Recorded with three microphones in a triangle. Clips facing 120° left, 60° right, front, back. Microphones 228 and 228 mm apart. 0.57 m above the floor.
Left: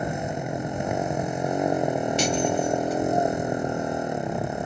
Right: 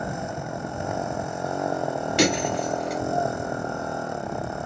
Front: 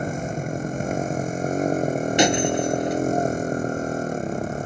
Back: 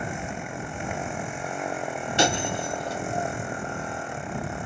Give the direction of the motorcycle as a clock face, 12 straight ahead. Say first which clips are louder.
Left 2 dB, front 6 dB; 10 o'clock.